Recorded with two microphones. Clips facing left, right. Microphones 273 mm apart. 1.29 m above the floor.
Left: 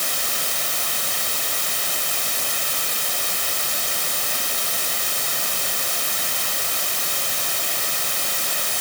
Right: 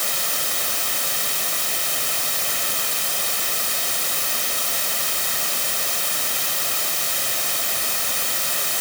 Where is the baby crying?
I don't hear a baby crying.